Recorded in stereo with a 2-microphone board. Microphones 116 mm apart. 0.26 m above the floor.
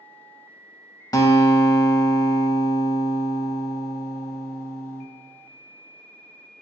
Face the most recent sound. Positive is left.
turn(degrees=30)  # may be behind; listen again after turning